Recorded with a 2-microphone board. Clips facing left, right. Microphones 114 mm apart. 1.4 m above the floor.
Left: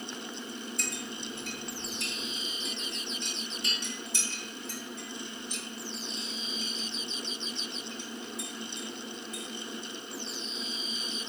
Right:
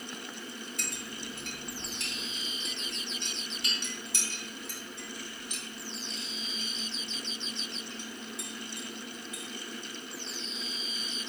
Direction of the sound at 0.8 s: 70° right (ahead or behind).